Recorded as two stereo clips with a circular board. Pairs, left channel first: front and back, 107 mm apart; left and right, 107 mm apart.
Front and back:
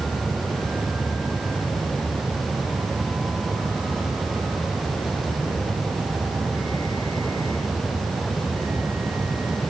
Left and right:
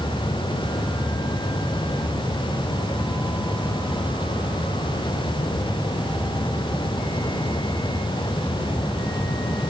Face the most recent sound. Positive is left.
No sound to turn to.